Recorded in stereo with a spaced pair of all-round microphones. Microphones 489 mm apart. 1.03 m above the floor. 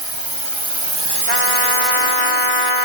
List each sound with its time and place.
0.0 s a drone: 65° right (ahead or behind); by 2.9 s 25° left (ahead or behind)
1.3 s a trumpet: 75° left (ahead or behind)